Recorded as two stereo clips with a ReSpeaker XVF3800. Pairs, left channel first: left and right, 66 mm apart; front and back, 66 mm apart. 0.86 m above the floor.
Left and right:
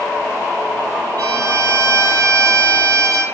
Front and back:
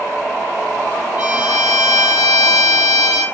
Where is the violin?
115° right, 7.5 m.